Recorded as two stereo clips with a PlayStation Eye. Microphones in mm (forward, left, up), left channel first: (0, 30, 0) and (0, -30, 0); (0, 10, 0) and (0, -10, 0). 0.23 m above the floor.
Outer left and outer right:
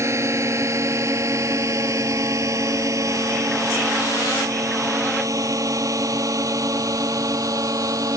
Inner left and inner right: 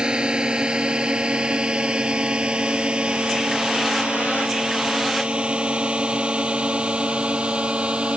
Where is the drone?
50° right (ahead or behind); by 8.2 s 70° right (ahead or behind).